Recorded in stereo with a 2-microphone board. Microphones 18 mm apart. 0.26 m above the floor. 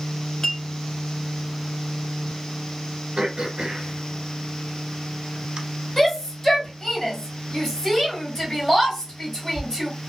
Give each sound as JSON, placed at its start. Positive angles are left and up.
{"t": 0.4, "sound": "a clink", "side_deg": 40, "distance_m": 0.7}
{"t": 3.2, "sound": "throat clearing", "side_deg": -65, "distance_m": 0.6}
{"t": 6.0, "sound": "a shout", "side_deg": 25, "distance_m": 1.5}